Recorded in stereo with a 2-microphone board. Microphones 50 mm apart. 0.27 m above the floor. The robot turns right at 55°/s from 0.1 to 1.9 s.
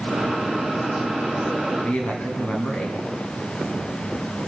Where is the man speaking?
20° left (ahead or behind), 2.5 m; by 3.0 s 25° left (ahead or behind), 2.5 m.